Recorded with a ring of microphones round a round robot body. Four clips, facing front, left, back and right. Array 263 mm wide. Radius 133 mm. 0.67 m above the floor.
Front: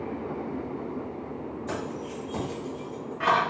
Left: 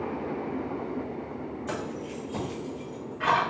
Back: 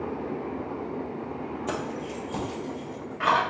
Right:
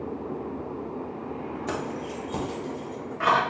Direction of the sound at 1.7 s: 150° right.